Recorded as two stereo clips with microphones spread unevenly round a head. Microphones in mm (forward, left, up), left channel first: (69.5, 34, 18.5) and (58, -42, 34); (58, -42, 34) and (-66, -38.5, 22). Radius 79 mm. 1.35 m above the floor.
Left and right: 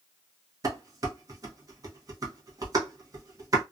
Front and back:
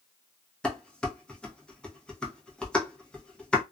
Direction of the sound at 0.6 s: 80° right.